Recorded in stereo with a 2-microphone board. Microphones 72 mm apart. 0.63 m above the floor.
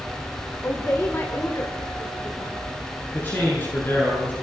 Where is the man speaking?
30° left (ahead or behind), 7.5 m.